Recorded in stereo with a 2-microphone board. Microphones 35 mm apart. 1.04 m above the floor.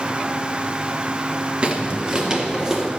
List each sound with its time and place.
1.6 s footsteps: 30° right (ahead or behind), 1.1 m; by 2.9 s 10° right (ahead or behind), 1.8 m